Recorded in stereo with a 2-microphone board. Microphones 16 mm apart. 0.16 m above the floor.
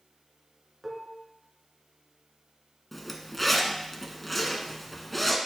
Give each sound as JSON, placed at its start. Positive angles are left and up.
{"t": 0.8, "sound": "dishes clattering", "side_deg": -5, "distance_m": 1.1}
{"t": 2.9, "sound": "a zipper", "side_deg": 5, "distance_m": 0.7}